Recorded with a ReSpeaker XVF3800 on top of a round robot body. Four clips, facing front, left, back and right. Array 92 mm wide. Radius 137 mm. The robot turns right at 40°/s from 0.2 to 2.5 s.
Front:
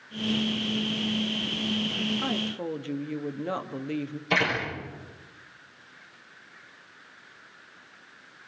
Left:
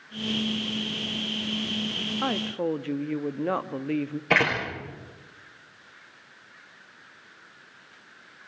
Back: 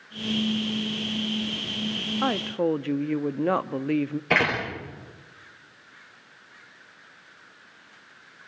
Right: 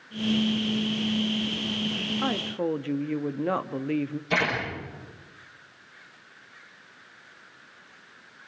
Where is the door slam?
135° left, 9.5 m.